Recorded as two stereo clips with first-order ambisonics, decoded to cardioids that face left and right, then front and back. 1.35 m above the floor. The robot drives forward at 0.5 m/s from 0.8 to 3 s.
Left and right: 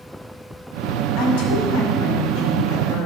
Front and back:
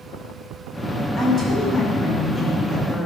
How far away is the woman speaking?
About 4.5 m.